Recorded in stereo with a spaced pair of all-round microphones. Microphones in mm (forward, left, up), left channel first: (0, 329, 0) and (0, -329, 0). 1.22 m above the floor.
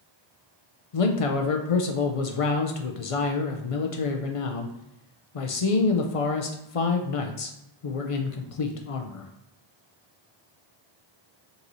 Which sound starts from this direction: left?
A man speaking, at 0.9 s.